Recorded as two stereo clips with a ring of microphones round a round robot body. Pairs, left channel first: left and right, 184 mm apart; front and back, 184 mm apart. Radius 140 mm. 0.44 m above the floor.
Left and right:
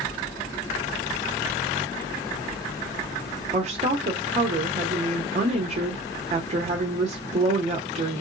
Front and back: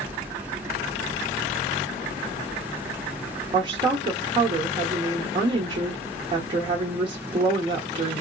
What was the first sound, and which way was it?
A woman speaking, 125° right.